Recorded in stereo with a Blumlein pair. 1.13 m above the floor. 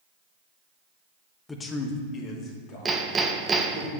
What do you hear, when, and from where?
1.5 s a man speaking: 10° left, 1.0 m; by 3.9 s 40° left, 3.5 m
2.9 s hammering: 15° right, 0.8 m